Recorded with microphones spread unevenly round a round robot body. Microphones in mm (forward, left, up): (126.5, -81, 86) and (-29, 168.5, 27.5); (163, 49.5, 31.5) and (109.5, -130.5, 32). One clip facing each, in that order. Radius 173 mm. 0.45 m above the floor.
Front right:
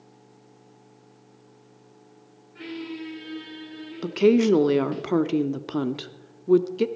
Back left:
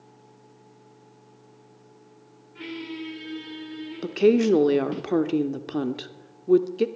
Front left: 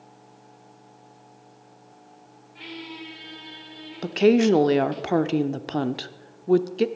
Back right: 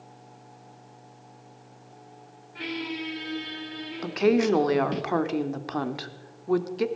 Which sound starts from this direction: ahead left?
A woman speaking, at 4.0 s.